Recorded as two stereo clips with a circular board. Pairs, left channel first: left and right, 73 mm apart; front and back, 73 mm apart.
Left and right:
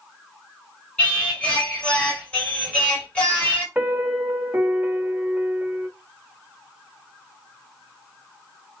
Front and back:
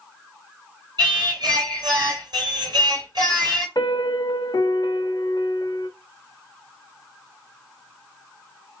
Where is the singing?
165° left, 2.5 m.